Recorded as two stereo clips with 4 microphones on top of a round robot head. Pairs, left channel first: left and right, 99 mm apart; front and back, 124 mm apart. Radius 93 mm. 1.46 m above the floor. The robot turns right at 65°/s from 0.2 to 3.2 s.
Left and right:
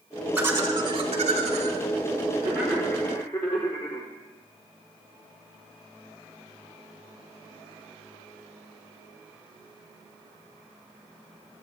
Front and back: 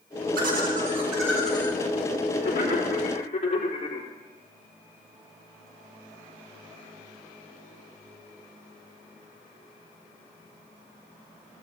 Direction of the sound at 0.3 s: 165° right.